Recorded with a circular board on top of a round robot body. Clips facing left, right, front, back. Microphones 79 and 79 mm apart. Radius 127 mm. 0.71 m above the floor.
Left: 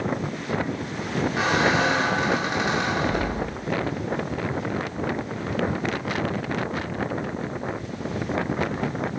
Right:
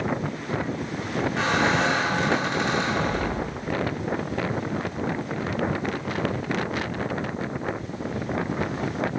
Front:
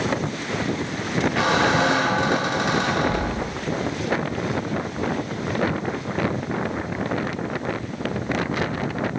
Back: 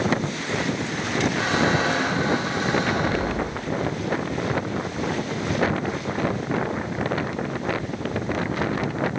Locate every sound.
1.4 s a squeak: 5° left, 0.9 m